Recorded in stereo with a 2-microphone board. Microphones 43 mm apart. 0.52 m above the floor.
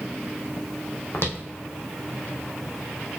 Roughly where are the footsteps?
Left.